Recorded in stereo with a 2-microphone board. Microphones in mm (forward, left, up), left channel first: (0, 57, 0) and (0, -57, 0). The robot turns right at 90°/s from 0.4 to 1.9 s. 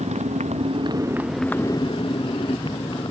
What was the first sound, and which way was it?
A motorcycle, 85° right.